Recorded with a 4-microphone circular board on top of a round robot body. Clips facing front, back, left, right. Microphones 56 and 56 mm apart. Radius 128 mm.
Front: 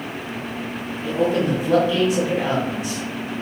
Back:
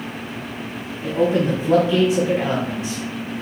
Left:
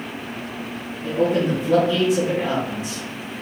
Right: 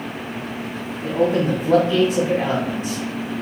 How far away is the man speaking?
About 1.3 m.